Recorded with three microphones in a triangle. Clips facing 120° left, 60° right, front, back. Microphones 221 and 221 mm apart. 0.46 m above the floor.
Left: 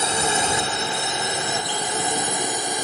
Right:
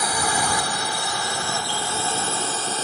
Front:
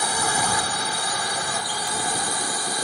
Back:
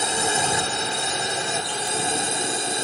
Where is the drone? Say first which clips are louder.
Left 2 dB, back 2 dB; 150° left; by 2.8 s 175° left.